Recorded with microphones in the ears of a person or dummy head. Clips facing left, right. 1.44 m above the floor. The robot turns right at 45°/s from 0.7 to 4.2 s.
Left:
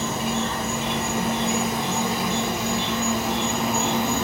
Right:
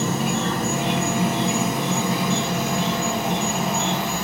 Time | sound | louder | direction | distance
0.0 | an insect | right 2 dB | 135° right | 0.9 m